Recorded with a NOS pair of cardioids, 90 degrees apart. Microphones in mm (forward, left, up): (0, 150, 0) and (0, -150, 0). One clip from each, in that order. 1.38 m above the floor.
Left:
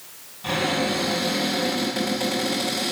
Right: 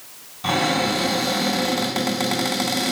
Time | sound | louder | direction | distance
0.4 | a cupboard door | right 3 dB | 50° right | 1.8 m